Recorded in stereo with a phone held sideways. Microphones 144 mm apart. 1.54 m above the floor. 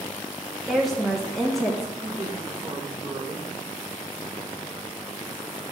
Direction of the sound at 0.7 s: Centre (ahead or behind).